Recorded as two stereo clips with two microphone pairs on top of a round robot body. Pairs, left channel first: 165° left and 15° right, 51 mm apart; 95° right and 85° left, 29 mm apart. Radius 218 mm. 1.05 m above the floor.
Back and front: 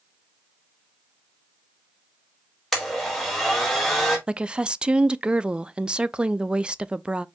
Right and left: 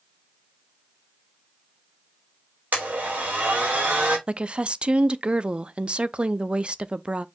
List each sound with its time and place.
2.7 s a blender: 75° left, 1.5 m
4.3 s a woman speaking: 45° left, 0.6 m